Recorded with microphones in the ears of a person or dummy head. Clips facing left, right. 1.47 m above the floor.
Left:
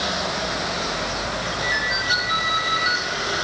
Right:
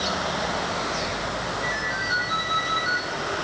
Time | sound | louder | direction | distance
1.6 | a ringtone | left 2 dB | 35° left (ahead or behind) | 6 m